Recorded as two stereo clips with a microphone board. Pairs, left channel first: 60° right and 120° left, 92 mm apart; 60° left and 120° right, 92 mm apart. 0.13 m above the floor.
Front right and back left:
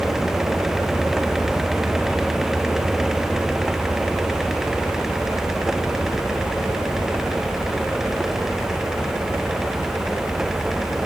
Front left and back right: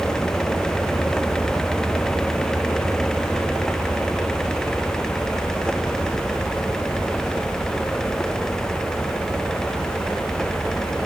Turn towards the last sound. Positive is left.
No sound to turn to.